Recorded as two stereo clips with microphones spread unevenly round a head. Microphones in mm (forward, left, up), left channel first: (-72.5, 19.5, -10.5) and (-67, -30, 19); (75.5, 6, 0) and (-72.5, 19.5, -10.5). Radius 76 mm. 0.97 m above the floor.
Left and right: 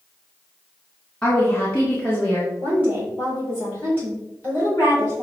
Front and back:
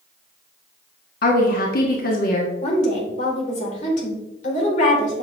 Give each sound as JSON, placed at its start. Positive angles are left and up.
{"t": 1.2, "sound": "a woman speaking", "azimuth_deg": 20, "distance_m": 1.8}
{"t": 2.6, "sound": "a woman speaking", "azimuth_deg": 35, "distance_m": 4.0}